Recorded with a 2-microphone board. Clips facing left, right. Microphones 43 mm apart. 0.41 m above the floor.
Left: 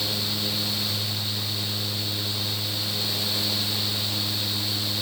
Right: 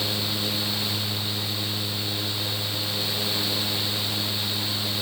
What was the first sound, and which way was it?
Only background noise.